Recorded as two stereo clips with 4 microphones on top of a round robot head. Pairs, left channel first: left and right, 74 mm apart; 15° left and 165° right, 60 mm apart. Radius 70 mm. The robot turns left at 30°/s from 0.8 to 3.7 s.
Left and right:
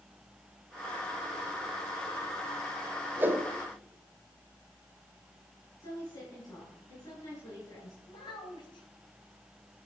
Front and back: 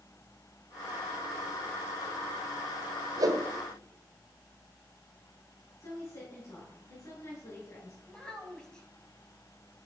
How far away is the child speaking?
About 3.5 m.